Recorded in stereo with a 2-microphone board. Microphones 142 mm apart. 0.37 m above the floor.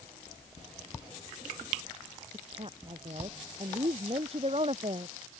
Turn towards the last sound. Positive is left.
turn(degrees=-45)  # may be behind; listen again after turning